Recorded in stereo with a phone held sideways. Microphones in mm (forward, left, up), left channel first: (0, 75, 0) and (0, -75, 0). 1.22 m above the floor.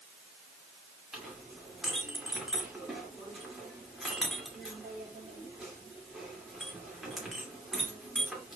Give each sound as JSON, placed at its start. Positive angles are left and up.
{"t": 1.1, "sound": "a clink", "side_deg": 0, "distance_m": 2.0}